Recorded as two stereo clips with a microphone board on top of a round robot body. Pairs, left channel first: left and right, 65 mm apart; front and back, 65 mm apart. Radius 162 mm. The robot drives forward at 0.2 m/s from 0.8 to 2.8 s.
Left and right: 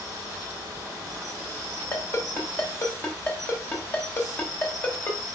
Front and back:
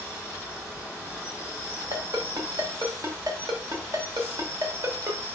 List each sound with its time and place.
0.0 s an insect: 110° right, 1.8 m; by 5.3 s 125° right, 2.0 m
1.9 s a ringtone: 145° left, 0.9 m; by 5.2 s 150° left, 1.0 m